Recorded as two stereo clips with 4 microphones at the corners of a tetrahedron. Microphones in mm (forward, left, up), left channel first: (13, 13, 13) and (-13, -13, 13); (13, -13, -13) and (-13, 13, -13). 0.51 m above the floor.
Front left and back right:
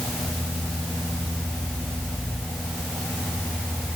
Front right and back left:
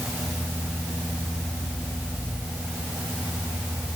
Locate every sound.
Only background noise.